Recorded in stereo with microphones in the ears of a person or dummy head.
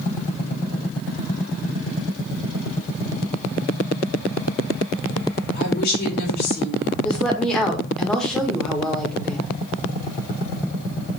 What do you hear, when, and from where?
5.5 s a woman speaking: 50° left (ahead or behind), 4.5 m
7.0 s a woman speaking: centre (ahead or behind), 1.8 m